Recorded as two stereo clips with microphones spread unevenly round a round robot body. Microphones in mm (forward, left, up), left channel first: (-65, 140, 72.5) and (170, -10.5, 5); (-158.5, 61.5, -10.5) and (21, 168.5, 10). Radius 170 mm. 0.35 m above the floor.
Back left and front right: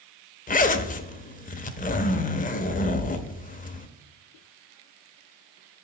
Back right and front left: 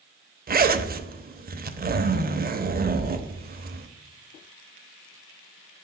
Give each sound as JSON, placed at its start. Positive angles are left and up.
{"t": 0.5, "sound": "a zipper", "azimuth_deg": 80, "distance_m": 0.7}